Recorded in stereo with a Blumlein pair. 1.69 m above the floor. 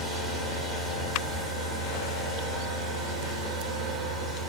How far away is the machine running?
About 3 m.